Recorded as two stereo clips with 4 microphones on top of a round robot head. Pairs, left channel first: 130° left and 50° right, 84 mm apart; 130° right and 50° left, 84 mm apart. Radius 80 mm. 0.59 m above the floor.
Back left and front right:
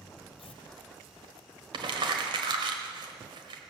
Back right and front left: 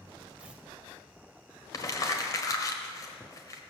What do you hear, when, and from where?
0.4 s tearing paper: 125° left, 1.0 m
1.7 s crumpling: 80° right, 1.4 m